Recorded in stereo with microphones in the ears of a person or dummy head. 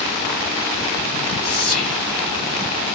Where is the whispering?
30° left (ahead or behind), 1.1 m.